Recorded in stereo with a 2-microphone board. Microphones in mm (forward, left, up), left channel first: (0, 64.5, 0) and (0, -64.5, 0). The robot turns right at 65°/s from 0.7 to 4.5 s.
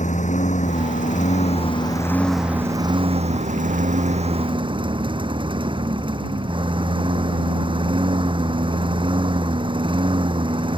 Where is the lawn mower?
70° left; by 10.8 s 40° right.